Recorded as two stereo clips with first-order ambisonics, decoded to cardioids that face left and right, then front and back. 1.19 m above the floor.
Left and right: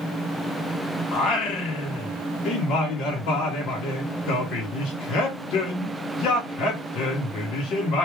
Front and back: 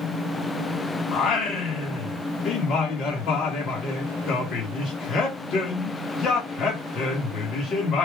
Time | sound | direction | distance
1.1 | singing | 50° left | 1.4 m